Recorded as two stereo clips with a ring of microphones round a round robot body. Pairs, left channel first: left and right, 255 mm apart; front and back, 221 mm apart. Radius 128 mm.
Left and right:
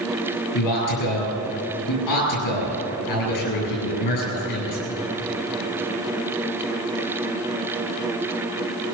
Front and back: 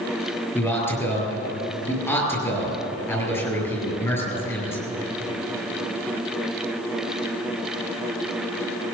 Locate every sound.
0.6 s a man speaking: 80° left, 8.5 m